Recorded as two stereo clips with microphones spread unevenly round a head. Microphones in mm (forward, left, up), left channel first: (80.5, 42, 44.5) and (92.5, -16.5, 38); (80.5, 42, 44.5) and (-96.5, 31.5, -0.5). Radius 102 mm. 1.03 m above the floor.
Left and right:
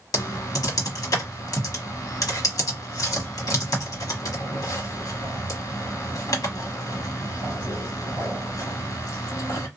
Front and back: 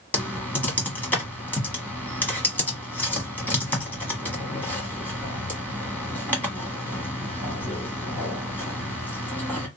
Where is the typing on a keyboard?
85° left, 1.2 m.